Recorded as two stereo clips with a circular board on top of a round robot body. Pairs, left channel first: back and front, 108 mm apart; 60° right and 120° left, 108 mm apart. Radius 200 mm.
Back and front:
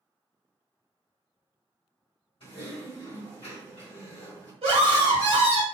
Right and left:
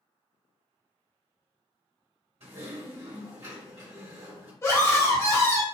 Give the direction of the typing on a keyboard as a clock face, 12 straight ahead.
7 o'clock.